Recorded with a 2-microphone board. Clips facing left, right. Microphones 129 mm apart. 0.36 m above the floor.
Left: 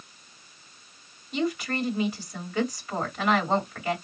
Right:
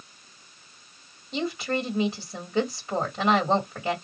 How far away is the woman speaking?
About 2 m.